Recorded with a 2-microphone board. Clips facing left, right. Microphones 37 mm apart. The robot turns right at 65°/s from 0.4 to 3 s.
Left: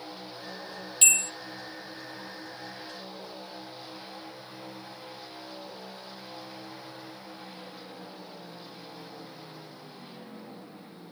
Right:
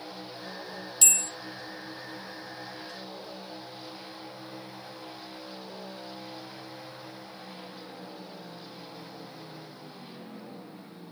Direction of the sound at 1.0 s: 35° left (ahead or behind).